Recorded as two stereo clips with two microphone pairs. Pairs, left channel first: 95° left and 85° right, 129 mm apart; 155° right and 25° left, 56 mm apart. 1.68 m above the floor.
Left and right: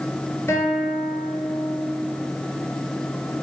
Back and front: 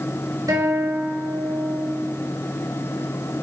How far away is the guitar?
About 4 m.